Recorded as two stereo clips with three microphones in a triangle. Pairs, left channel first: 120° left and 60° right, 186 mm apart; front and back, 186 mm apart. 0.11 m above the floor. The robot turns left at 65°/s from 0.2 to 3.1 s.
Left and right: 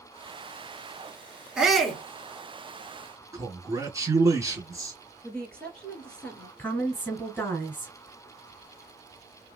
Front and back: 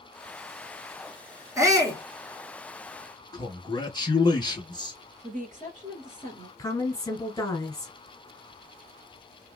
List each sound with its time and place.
1.6 s a shout: 135° right, 1.1 m; by 2.0 s 165° right, 1.1 m
3.3 s a man speaking: 15° right, 1.2 m
5.2 s a woman speaking: 155° right, 2 m
6.6 s a woman speaking: 50° left, 1.4 m